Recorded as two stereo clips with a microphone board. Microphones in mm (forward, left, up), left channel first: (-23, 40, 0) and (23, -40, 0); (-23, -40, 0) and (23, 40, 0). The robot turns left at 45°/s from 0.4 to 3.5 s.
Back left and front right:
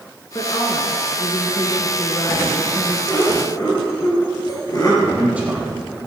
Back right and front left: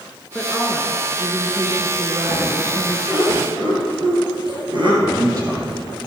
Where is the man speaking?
15° left, 4 m.